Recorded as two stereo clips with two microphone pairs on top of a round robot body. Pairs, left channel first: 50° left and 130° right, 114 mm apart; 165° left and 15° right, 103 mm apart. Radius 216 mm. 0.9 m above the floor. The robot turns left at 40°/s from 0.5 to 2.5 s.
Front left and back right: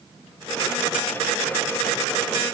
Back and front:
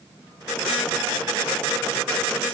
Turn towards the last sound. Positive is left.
No sound to turn to.